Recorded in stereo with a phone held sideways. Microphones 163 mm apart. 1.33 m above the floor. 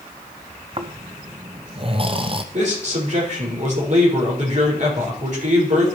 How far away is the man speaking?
About 5 m.